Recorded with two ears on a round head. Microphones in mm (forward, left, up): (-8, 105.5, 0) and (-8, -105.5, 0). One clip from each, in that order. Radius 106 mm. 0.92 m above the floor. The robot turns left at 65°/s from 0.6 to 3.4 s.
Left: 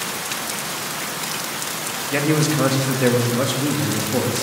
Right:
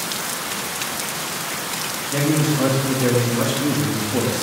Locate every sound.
2.1 s a man speaking: 95° left, 1.4 m; by 4.4 s 10° left, 1.4 m